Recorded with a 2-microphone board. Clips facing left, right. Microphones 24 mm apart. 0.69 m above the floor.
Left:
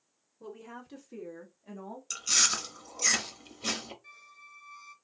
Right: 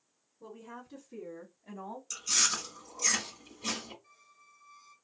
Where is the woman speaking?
60° left (ahead or behind), 2 m; by 2.0 s 10° right (ahead or behind), 1.3 m.